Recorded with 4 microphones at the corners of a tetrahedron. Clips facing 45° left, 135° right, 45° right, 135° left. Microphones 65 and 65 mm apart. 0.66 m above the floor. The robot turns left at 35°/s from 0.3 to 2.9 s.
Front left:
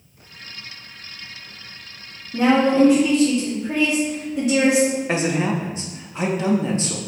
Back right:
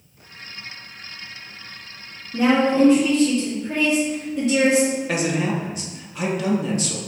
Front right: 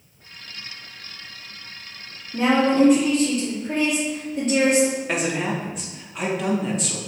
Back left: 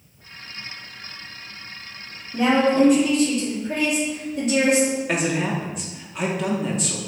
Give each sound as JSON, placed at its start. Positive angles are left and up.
{"t": 2.3, "sound": "a woman speaking", "azimuth_deg": -5, "distance_m": 1.5}
{"t": 5.1, "sound": "a man speaking", "azimuth_deg": 45, "distance_m": 0.6}